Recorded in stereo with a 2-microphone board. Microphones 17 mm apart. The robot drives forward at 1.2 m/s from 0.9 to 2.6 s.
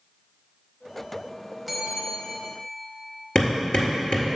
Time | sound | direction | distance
1.7 | a bell | 5° left (ahead or behind) | 1.1 m
3.4 | hammering | 60° left (ahead or behind) | 1.9 m